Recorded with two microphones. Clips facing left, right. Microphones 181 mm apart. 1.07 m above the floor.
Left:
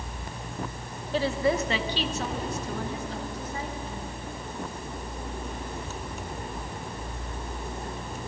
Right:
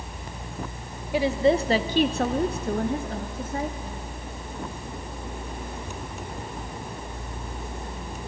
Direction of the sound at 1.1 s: 10° right (ahead or behind).